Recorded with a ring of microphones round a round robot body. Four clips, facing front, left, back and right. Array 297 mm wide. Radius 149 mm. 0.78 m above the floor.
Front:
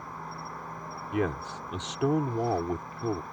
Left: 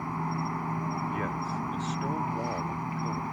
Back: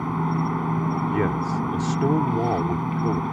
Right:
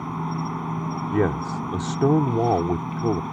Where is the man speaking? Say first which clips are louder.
Right 9 dB, back 7 dB; 100° right.